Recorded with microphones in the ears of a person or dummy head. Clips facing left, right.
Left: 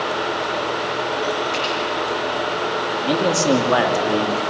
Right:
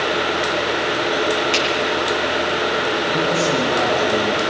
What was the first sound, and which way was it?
A finger snap, 90° right.